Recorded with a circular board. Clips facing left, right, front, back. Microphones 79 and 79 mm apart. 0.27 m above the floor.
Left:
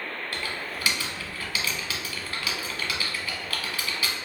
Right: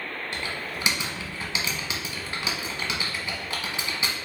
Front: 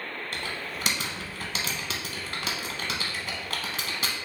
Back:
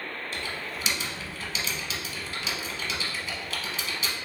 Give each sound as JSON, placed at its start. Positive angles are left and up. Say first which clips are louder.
{"t": 0.3, "sound": "typing on a keyboard", "louder": "right 1 dB, front 1 dB", "azimuth_deg": -25, "distance_m": 0.8}